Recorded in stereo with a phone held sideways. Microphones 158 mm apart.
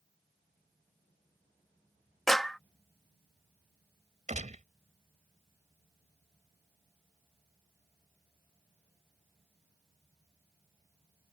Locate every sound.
2.3 s a clap: centre (ahead or behind)
4.3 s a gunshot: 50° right (ahead or behind)